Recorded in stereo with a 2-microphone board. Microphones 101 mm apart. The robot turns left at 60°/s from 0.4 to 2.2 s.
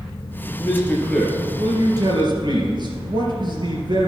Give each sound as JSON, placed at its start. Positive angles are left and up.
{"t": 0.4, "sound": "a man speaking", "azimuth_deg": 45, "distance_m": 3.0}